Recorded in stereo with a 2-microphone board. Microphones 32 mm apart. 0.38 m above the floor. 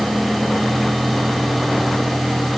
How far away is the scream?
I don't hear a scream.